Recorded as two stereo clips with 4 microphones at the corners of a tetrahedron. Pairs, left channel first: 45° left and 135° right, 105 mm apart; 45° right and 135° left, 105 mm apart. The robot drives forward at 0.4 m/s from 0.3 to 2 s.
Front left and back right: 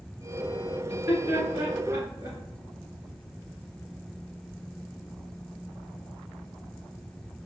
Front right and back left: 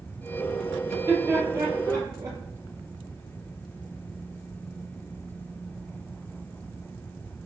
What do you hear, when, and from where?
0.9 s laughter: 165° left, 1.5 m; by 2.4 s 170° left, 1.7 m